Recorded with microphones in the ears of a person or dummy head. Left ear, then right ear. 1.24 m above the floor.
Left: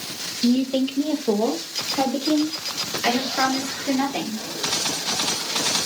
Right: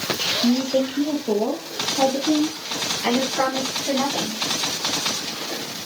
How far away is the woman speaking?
About 0.7 m.